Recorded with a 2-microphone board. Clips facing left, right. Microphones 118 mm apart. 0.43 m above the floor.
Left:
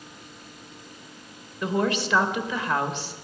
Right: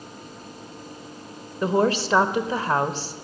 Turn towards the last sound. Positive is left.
turn(degrees=-35)  # may be behind; listen again after turning